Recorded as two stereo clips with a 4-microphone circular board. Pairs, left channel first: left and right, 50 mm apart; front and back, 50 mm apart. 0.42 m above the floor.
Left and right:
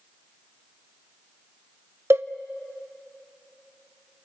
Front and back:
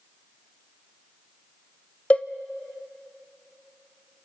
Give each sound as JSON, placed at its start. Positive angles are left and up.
{"t": 2.1, "sound": "a cowbell", "azimuth_deg": -60, "distance_m": 0.6}